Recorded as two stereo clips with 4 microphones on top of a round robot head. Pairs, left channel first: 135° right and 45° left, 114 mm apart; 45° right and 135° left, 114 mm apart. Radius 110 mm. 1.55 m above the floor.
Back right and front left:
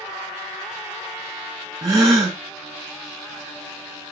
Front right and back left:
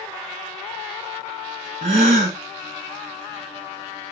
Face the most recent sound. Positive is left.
turn(degrees=105)